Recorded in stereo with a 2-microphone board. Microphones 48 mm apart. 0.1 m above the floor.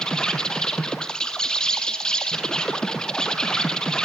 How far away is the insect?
About 1.8 m.